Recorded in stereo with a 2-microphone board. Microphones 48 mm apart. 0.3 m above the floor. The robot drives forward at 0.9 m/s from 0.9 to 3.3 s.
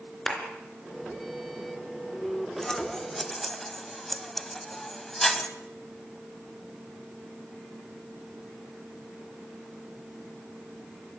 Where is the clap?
5° left (ahead or behind), 3.5 m.